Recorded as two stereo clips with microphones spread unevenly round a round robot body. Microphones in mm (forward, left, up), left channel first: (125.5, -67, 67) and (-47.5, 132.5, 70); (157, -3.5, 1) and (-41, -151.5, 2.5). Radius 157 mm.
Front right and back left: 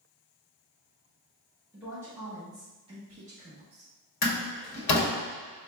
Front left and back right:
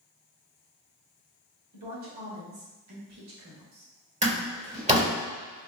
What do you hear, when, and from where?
1.7 s a woman speaking: 145° right, 1.7 m; by 3.9 s 175° left, 1.0 m
4.2 s a door slam: 80° right, 1.7 m